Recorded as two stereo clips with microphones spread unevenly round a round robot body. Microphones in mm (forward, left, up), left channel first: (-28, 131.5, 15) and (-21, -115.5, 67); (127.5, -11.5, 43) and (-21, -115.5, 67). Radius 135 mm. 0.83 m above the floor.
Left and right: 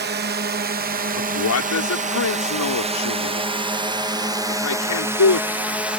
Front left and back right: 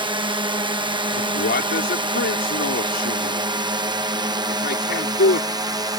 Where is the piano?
I don't hear a piano.